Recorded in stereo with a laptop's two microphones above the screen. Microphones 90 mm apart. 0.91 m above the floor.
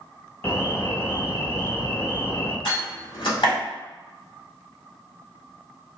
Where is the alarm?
25° left (ahead or behind), 0.7 m.